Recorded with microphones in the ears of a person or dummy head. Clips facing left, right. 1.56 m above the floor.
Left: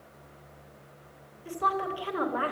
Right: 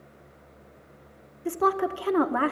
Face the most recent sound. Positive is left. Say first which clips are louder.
# right 7 dB
turn(degrees=-65)  # may be behind; listen again after turning